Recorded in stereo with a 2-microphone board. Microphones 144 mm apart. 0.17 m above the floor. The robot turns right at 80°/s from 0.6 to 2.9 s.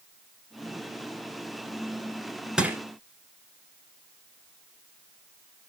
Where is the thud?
No thud in this recording.